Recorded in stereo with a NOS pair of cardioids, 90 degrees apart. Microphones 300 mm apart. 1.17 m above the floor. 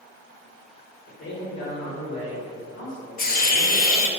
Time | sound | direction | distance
1.1 | a man speaking | 60° left | 1.8 m
3.2 | a hiss | 30° left | 0.8 m